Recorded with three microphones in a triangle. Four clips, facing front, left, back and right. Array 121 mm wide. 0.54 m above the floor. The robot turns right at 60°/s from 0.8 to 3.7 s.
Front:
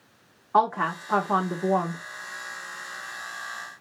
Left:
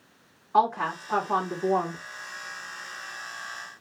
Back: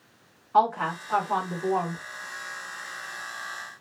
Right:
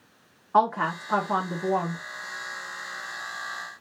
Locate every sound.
0.5 s a woman speaking: 40° right, 1.1 m; by 2.0 s 35° left, 1.1 m